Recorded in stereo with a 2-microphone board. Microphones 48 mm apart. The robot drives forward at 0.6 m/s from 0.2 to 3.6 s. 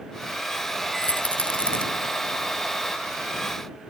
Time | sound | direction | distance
1.0 | a rattle | 30° left (ahead or behind) | ?